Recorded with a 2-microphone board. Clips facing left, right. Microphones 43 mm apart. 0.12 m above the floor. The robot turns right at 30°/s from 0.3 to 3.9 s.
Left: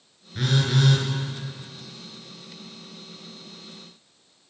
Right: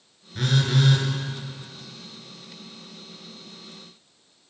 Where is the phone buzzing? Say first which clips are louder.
Even; 5° left (ahead or behind), 1.4 m; by 1.1 s 5° right (ahead or behind), 1.4 m.